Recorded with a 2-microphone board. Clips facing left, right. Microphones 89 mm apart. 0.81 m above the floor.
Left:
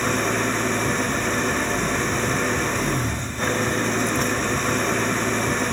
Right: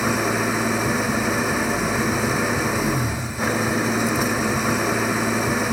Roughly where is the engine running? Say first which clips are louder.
Right 1 dB; centre.